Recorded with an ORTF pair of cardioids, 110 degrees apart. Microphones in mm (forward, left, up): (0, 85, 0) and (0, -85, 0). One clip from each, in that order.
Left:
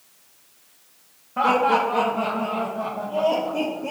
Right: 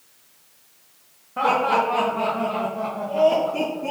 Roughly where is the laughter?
Ahead.